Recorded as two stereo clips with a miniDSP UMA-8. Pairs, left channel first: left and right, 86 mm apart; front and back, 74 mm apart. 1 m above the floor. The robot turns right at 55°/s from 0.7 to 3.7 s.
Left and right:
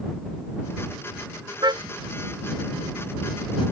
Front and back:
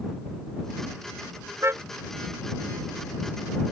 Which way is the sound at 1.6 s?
130° right.